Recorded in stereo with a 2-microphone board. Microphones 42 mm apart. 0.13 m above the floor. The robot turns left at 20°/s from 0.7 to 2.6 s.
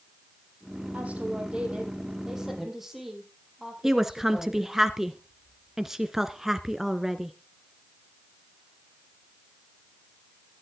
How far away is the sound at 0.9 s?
About 5 m.